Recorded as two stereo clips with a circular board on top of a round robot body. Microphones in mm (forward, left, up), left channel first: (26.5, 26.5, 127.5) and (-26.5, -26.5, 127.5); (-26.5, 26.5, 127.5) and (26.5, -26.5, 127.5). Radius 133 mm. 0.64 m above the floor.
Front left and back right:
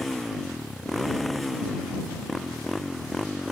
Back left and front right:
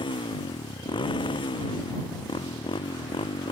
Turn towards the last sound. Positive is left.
turn(degrees=135)